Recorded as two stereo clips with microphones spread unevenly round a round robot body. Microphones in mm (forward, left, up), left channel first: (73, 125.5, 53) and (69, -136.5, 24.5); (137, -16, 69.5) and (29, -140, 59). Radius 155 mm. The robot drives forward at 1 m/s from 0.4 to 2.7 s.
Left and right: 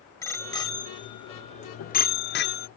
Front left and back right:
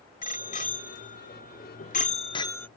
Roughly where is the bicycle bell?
Ahead.